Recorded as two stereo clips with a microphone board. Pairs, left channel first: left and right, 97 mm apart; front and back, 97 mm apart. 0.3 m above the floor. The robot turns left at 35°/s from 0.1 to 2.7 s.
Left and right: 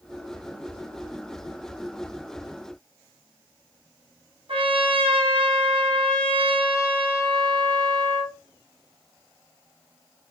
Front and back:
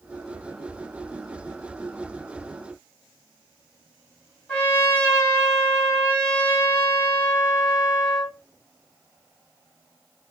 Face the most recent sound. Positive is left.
turn(degrees=-70)